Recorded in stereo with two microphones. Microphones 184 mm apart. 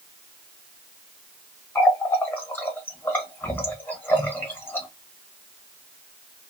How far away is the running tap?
About 1.1 m.